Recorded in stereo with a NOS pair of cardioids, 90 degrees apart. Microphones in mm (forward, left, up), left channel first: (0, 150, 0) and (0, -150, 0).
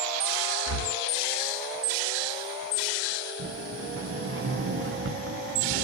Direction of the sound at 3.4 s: 45° right.